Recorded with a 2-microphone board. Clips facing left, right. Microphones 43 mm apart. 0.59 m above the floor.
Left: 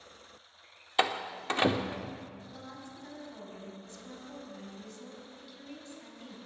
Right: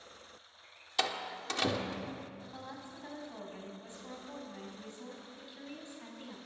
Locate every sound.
1.0 s a door slam: 25° left (ahead or behind), 0.8 m
2.4 s a woman speaking: 25° right (ahead or behind), 5 m